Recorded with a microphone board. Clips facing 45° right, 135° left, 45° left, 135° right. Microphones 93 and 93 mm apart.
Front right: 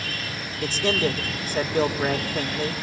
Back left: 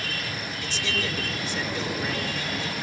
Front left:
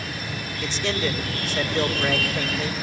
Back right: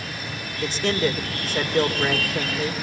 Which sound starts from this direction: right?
A man speaking, at 0.6 s.